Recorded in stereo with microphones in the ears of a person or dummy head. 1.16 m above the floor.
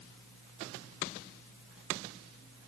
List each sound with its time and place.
Only background noise.